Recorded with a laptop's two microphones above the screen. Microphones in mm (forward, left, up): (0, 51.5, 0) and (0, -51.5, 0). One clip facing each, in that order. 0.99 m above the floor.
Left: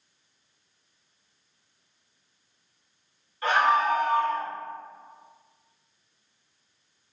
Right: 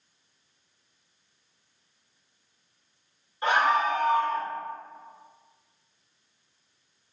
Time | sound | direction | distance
3.4 | a scream | 20° right (ahead or behind) | 0.9 m